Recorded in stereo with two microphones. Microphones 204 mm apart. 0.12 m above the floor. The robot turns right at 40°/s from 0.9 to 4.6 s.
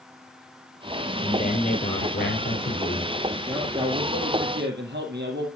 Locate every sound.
1.2 s a man speaking: 35° left, 2.5 m; by 3.1 s 110° left, 2.5 m
3.5 s a man speaking: 165° right, 3 m; by 5.5 s 115° right, 3 m